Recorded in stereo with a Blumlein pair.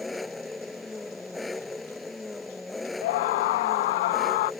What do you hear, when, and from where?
0.0 s an engine running: 10° left
3.0 s a scream: 50° left